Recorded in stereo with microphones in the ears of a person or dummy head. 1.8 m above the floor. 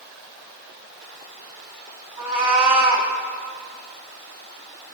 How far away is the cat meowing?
About 1.9 m.